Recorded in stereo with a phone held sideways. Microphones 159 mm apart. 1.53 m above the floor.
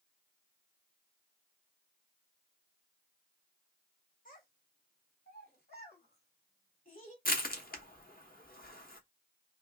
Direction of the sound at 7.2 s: 60° left (ahead or behind).